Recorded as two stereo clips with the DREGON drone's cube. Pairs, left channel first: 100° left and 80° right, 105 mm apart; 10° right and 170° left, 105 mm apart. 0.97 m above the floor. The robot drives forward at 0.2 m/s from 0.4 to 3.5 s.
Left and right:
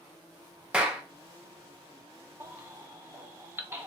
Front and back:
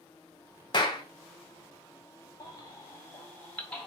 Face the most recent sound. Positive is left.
turn(degrees=-60)